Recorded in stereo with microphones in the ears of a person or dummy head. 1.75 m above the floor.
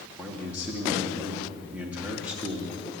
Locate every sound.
0.2 s a man speaking: 10° right (ahead or behind), 2.5 m